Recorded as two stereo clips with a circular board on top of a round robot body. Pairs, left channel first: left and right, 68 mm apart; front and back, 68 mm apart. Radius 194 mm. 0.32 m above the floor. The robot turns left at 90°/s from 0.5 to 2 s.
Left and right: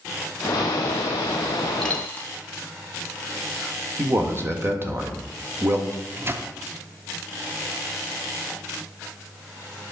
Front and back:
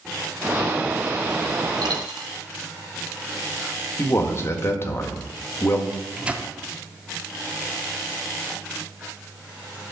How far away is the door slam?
I don't hear a door slam.